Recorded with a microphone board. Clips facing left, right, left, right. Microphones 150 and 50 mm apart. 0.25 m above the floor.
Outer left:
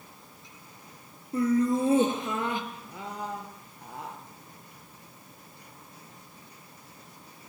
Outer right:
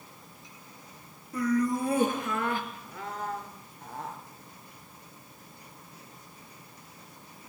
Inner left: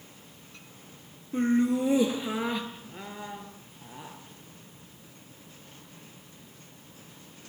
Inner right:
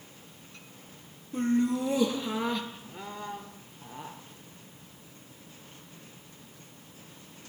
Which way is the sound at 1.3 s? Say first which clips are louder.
Outer left 3 dB, inner left 2 dB; 25° left (ahead or behind).